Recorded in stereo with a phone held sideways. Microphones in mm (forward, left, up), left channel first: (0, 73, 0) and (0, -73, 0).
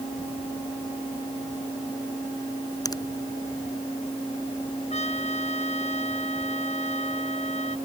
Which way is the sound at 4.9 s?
50° left (ahead or behind).